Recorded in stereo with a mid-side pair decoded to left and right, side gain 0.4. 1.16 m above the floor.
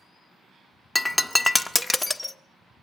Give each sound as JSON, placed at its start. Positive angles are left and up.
{"t": 0.9, "sound": "breaking glass", "azimuth_deg": 5, "distance_m": 0.9}